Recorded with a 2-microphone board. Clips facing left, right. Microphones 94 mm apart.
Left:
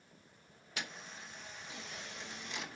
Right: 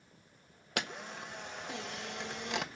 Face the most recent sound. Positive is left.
turn(degrees=-65)  # may be behind; listen again after turning